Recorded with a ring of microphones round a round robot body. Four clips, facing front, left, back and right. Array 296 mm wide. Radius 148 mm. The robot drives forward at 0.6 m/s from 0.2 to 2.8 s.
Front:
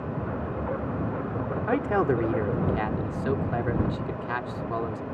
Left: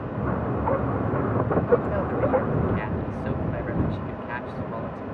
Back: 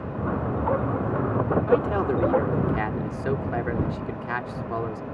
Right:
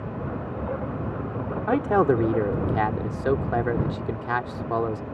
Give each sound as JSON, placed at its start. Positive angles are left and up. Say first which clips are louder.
{"t": 1.7, "sound": "a man speaking", "louder": "right 2 dB, front 1 dB", "azimuth_deg": -75}